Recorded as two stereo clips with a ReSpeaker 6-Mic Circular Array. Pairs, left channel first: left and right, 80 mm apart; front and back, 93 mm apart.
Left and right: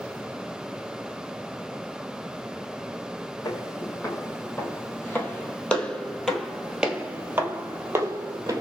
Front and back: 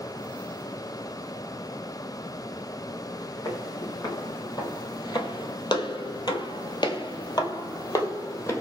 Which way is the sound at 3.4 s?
50° left.